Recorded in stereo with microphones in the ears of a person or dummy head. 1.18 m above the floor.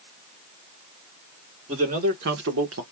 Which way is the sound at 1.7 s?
30° right (ahead or behind).